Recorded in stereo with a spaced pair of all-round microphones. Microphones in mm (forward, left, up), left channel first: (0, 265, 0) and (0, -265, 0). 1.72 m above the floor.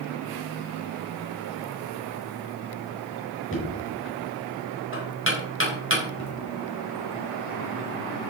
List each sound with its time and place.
3.5 s knocking: 20° left (ahead or behind), 5 m